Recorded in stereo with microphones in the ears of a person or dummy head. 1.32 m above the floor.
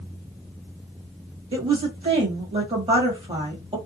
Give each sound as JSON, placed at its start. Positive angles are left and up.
{"t": 1.5, "sound": "a woman speaking", "side_deg": -30, "distance_m": 1.2}